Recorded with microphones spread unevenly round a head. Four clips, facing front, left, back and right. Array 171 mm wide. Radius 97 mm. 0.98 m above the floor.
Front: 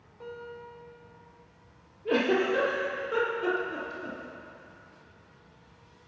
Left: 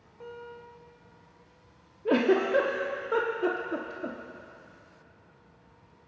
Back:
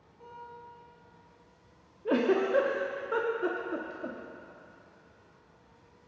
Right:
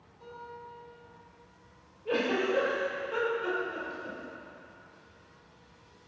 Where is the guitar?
45° left, 3 m.